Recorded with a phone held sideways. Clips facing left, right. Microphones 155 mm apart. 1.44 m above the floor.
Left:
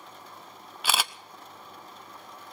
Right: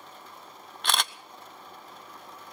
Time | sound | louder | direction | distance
0.8 | a camera shutter | even | 5° left (ahead or behind) | 0.6 m